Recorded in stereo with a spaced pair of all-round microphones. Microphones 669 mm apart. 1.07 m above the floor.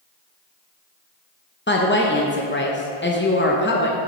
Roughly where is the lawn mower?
I don't hear a lawn mower.